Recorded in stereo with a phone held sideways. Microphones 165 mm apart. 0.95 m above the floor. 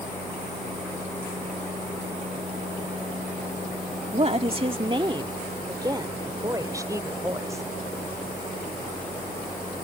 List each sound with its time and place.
4.1 s a woman speaking: 40° right (ahead or behind); by 7.7 s 20° right (ahead or behind)